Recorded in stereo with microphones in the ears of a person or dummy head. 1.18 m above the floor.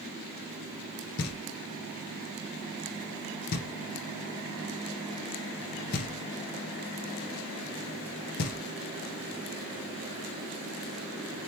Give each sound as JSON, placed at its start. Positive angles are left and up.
{"t": 1.2, "sound": "knocking", "side_deg": 55, "distance_m": 0.8}